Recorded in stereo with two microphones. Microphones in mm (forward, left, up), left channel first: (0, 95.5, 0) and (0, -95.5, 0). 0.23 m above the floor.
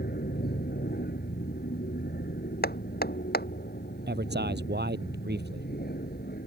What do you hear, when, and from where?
0.0 s an aircraft: 50° left (ahead or behind)
2.6 s hammering: 50° left (ahead or behind)
4.1 s a man speaking: 55° right (ahead or behind)